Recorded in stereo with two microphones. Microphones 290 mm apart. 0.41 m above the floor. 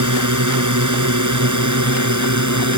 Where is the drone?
70° right (ahead or behind); by 2.8 s 65° right (ahead or behind).